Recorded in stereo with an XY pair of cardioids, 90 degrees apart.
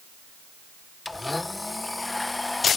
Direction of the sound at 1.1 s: 20° left.